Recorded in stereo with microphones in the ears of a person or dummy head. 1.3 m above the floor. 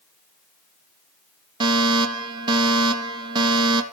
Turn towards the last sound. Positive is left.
turn(degrees=-20)  # may be behind; listen again after turning